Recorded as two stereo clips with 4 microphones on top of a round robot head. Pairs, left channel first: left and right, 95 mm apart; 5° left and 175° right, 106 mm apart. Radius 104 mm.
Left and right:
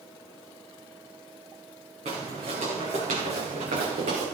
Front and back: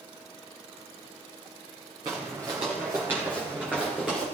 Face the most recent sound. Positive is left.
turn(degrees=-80)